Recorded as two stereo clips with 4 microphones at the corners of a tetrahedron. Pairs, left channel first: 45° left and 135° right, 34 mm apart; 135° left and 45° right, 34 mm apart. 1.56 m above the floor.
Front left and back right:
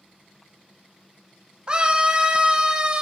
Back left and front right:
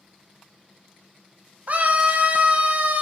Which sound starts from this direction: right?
A scream, at 1.7 s.